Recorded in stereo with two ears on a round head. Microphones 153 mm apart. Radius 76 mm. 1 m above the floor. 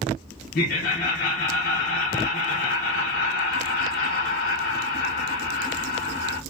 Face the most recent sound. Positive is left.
turn(degrees=55)  # may be behind; listen again after turning